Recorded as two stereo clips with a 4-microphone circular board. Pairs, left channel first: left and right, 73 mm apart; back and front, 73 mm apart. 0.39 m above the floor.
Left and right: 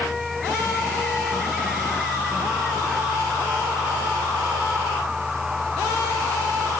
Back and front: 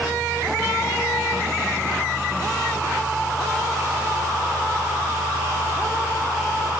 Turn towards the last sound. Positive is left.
No sound to turn to.